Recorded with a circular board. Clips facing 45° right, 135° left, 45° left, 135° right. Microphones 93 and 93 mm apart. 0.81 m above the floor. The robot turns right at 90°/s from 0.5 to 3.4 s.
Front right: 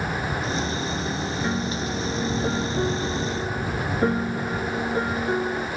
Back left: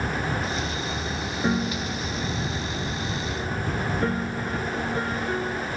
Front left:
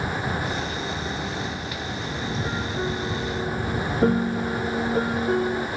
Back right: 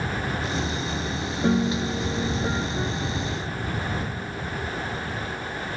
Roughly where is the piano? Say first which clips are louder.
Back left 4 dB, back right 9 dB; behind right.